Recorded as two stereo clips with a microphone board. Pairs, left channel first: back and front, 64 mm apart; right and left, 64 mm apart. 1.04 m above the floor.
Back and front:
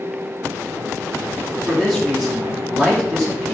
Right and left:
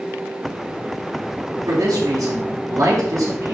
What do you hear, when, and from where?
1.7 s a man speaking: 85° left, 4 m